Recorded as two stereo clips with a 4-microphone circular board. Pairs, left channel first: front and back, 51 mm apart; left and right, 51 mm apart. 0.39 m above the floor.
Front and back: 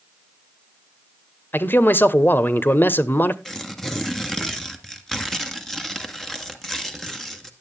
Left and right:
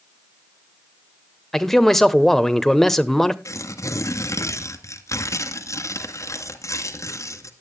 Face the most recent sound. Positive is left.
turn(degrees=85)